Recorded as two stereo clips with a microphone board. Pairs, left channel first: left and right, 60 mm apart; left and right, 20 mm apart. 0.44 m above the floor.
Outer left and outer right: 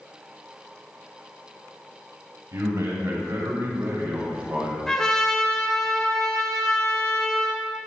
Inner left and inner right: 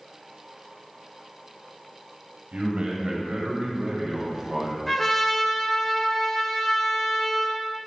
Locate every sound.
2.5 s a man speaking: 65° right (ahead or behind), 3 m; by 4.8 s 25° right (ahead or behind), 2.5 m
4.9 s a trumpet: 10° left (ahead or behind), 1.4 m